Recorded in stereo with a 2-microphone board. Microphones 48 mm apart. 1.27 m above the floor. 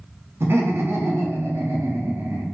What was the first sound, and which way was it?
Laughter, 60° right (ahead or behind).